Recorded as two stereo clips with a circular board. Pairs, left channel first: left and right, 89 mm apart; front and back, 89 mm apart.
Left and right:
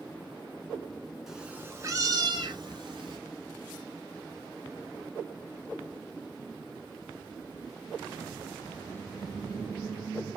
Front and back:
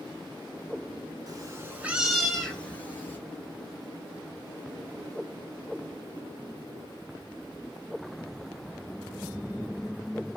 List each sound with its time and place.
1.3 s a cat meowing: 175° right, 0.7 m; by 3.2 s 65° right, 1.3 m